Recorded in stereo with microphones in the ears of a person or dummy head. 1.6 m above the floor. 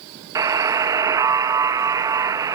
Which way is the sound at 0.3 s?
25° right (ahead or behind).